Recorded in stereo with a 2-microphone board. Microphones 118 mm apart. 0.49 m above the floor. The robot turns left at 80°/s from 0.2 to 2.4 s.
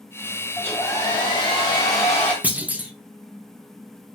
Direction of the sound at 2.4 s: 10° right (ahead or behind).